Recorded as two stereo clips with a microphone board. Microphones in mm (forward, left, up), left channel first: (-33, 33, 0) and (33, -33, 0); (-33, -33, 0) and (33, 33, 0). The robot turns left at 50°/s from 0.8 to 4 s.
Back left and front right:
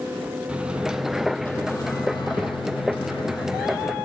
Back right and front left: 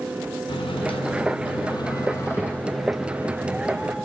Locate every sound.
0.5 s a microwave: 120° right, 0.9 m; by 4.0 s 80° left, 0.9 m